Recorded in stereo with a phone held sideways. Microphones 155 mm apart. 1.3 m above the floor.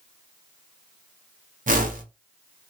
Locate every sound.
1.7 s a whoosh: 55° right (ahead or behind), 0.7 m